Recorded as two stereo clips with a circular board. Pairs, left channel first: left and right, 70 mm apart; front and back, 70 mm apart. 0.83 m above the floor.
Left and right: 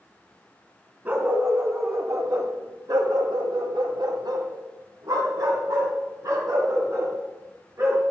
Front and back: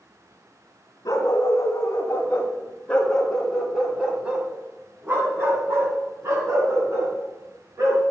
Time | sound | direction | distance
1.1 | a dog barking | 30° right | 1.6 m